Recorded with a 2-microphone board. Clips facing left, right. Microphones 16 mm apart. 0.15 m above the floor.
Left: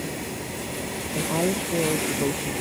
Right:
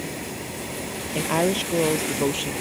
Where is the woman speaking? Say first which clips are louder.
Right 3 dB; 65° right (ahead or behind); by 2.5 s 70° right (ahead or behind).